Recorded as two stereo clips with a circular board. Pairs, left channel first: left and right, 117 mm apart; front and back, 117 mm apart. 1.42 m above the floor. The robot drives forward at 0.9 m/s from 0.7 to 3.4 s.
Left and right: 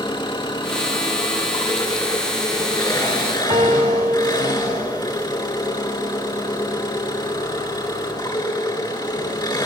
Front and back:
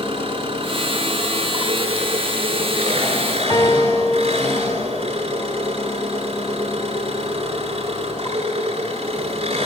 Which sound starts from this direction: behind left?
An engine running, at 0.0 s.